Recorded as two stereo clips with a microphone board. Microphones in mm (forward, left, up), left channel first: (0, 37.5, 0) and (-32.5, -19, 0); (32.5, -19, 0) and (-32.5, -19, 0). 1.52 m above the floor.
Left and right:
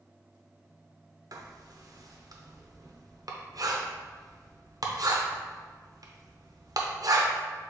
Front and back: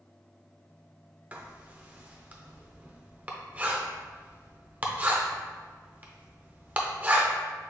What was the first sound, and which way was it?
Writing, 115° right.